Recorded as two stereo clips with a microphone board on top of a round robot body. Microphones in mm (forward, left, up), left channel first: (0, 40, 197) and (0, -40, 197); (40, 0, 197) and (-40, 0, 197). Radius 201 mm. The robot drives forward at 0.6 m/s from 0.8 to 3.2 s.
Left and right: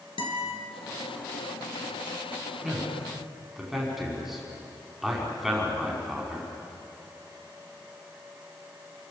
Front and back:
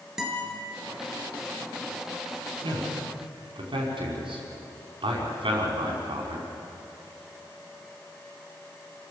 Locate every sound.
0.2 s a guitar: 95° left, 5 m
2.6 s a man speaking: straight behind, 5 m